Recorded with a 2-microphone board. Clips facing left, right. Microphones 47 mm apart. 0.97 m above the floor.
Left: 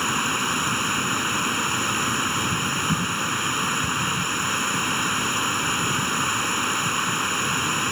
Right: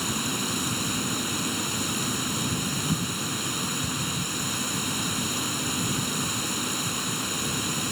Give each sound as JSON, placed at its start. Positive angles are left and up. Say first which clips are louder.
{"t": 0.0, "sound": "running water", "louder": "left 6 dB", "side_deg": 45}